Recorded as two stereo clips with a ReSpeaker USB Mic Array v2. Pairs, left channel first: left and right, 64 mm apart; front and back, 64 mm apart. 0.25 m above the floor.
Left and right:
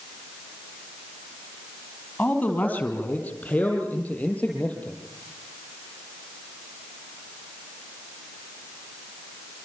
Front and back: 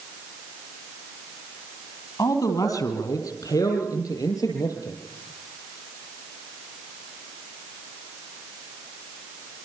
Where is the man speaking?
20° left, 6 m.